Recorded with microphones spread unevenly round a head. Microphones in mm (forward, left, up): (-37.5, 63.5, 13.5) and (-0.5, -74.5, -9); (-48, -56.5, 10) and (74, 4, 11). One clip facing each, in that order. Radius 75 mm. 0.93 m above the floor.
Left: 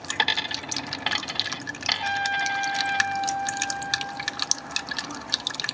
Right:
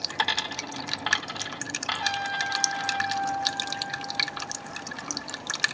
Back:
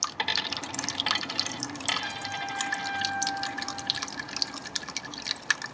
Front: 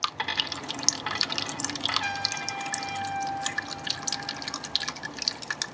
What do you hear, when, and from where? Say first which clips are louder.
0.2 s a dropped coin: even, even; 155° left, 0.7 m
2.0 s a trumpet: left 4 dB, front 2 dB; 25° left, 4 m